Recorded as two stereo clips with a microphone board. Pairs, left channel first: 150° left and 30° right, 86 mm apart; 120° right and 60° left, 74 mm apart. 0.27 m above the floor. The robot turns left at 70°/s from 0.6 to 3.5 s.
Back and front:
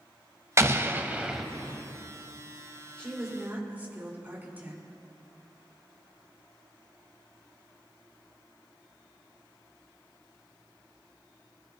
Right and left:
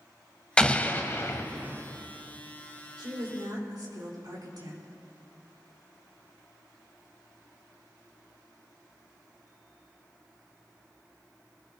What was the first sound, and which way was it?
An explosion, 50° right.